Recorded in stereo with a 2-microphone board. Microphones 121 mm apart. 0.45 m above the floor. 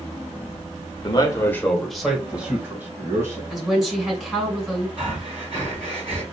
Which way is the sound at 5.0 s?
50° right (ahead or behind).